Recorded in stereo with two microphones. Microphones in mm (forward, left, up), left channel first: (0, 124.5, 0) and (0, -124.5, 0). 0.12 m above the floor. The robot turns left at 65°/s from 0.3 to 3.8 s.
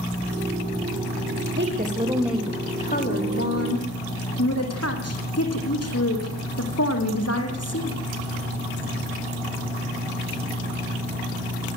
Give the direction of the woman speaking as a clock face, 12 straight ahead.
4 o'clock.